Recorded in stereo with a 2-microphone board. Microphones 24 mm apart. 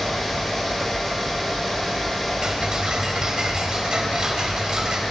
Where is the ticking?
35° right (ahead or behind), 3 m.